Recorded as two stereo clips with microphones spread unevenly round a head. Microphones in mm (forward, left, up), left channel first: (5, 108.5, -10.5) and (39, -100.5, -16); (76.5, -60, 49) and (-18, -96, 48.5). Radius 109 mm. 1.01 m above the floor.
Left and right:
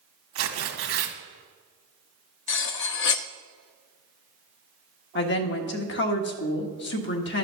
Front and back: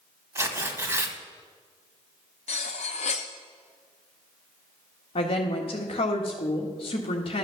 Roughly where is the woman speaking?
Ahead left.